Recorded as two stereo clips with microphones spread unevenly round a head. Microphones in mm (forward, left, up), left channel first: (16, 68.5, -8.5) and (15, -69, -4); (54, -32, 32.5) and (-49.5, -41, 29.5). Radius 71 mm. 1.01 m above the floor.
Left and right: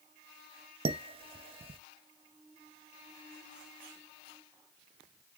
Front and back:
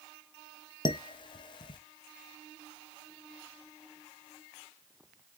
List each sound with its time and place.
0.8 s dishes clattering: 40° right, 0.5 m